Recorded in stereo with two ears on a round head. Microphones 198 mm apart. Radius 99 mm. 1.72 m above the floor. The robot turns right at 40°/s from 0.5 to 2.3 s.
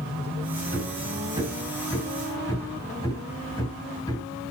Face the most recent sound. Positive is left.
turn(degrees=15)  # may be behind; listen again after turning